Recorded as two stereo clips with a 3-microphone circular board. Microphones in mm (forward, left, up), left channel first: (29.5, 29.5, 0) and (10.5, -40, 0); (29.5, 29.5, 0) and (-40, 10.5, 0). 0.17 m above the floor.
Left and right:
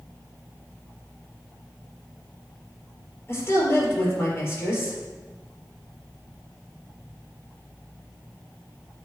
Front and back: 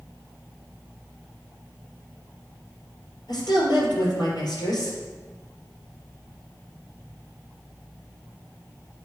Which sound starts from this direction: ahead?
A woman speaking, at 3.3 s.